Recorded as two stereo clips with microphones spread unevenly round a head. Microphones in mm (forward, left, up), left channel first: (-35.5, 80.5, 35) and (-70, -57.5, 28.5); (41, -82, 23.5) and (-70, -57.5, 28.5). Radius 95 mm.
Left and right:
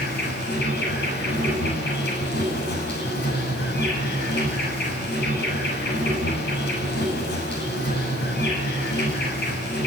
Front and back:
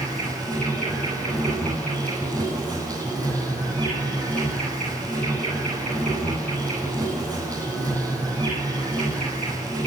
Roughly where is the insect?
Left.